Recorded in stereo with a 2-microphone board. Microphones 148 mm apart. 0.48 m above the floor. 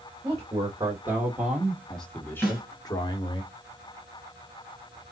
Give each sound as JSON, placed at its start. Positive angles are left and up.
{"t": 0.2, "sound": "a man speaking", "side_deg": -25, "distance_m": 1.8}
{"t": 2.4, "sound": "a snare drum", "side_deg": -5, "distance_m": 3.0}